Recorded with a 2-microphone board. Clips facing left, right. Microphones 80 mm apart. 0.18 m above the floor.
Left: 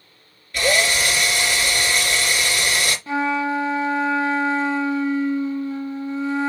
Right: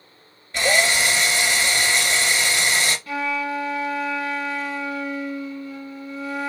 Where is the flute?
30° left (ahead or behind), 0.6 m.